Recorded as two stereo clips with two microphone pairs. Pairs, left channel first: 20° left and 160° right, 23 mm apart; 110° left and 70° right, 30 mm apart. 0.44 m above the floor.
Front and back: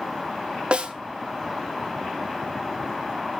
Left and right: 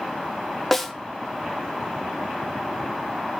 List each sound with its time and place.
0.7 s a snare drum: 170° right, 0.6 m